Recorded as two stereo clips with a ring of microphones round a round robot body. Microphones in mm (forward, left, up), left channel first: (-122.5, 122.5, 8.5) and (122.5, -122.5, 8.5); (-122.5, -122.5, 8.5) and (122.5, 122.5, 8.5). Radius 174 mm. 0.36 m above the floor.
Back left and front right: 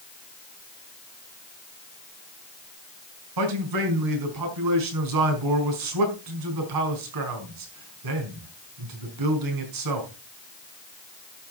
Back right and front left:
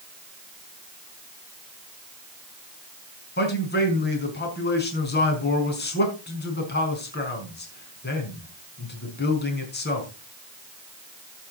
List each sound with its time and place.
3.4 s a man speaking: 75° right, 4.5 m